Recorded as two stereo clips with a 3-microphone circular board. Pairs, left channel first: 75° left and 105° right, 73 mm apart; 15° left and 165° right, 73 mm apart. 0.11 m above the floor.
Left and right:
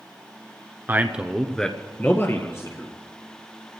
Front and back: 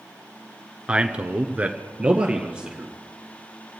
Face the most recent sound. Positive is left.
turn(degrees=120)